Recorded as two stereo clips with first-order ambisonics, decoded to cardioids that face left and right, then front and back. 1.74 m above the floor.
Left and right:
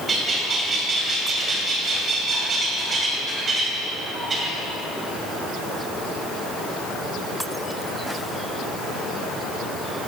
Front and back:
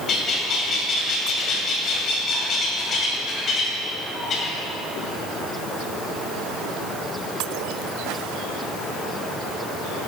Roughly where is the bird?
Ahead right.